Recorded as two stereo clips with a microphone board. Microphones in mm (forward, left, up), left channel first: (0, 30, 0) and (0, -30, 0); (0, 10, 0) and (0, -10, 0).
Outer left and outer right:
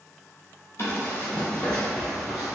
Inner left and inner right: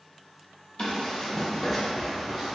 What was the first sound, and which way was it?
Running footsteps, 45° left (ahead or behind).